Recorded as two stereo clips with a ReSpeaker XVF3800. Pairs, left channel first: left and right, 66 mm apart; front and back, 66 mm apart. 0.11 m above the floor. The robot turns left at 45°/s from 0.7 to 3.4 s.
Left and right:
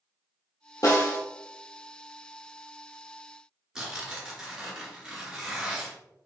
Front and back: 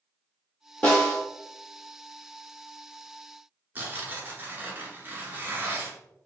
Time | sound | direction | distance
0.8 | a snare drum | 70° left | 1.6 m
3.8 | tearing paper | 160° right | 1.2 m